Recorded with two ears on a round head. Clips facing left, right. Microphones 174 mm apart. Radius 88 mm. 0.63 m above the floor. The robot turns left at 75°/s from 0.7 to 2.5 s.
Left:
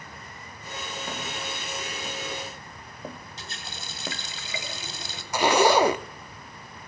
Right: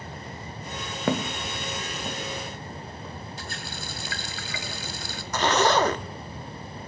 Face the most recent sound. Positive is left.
turn(degrees=10)  # may be behind; listen again after turning